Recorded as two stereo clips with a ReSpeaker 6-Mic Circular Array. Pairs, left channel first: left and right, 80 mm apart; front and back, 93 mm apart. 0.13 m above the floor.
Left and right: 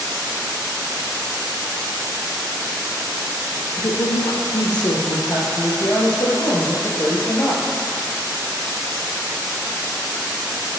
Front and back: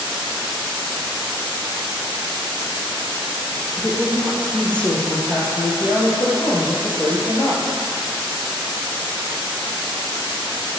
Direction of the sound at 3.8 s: 75° left.